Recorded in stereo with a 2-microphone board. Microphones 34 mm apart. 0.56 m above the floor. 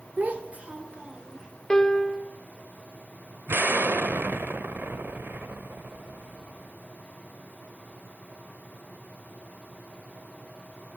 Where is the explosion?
80° right, 0.6 m.